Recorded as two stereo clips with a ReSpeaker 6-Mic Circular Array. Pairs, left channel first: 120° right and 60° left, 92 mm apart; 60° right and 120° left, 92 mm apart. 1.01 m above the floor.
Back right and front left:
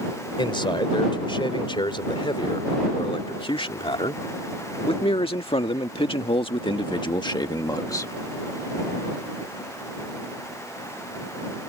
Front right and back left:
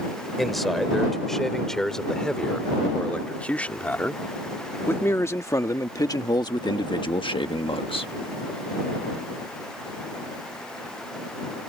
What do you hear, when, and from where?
0.4 s a man speaking: 150° right; by 8.1 s 65° right